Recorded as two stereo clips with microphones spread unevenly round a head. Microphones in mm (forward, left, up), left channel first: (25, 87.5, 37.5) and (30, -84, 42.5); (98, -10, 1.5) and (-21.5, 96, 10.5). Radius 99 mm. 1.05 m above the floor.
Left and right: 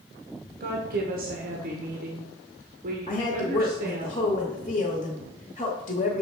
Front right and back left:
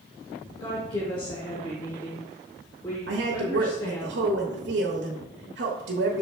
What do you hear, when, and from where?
0.6 s a woman speaking: 100° right, 1.1 m
3.1 s a woman speaking: 150° left, 1.0 m